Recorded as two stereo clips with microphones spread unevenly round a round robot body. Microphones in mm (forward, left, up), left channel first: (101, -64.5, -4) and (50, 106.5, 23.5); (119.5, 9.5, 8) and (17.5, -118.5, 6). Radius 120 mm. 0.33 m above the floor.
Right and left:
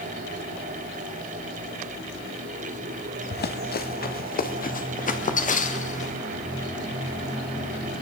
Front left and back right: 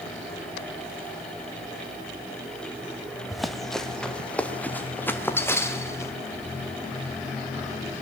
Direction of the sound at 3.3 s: 40° right.